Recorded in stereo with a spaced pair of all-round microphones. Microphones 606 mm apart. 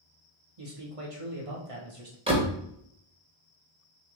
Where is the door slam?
10° right (ahead or behind), 0.9 m.